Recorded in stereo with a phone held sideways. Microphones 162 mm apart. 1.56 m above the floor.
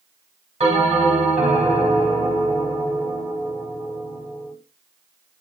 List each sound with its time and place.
0.6 s a bell: 40° right (ahead or behind), 1.6 m